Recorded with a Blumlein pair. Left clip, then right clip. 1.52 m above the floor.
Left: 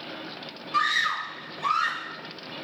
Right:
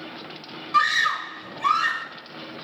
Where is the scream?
5° right, 0.7 m.